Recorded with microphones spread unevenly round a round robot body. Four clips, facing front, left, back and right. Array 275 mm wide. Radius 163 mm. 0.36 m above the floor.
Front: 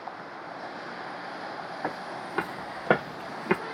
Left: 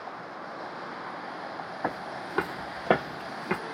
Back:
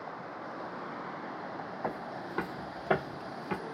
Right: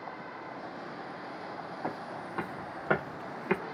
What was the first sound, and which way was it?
Footsteps, 65° left.